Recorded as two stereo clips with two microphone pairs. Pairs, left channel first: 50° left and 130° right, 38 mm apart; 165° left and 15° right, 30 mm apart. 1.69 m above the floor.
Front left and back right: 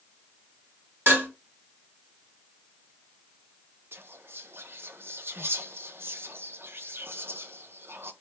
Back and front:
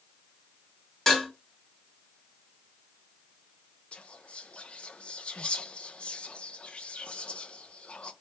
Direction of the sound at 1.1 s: 115° right.